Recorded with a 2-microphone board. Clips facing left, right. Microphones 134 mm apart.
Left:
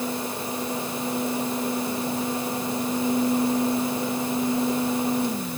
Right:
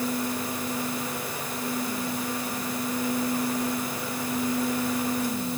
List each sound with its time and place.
Only background noise.